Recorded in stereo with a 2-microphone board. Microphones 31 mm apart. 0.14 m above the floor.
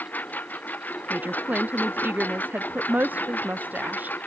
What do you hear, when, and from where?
0.0 s a lawn mower: 75° left (ahead or behind); by 4.3 s 85° left
1.1 s a woman speaking: 85° right